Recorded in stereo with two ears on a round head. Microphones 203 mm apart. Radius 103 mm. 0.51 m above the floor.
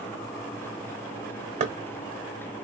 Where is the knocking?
35° right (ahead or behind), 0.8 m.